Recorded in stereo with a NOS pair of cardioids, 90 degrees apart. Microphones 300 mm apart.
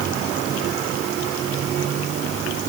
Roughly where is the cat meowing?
No cat meowing in this recording.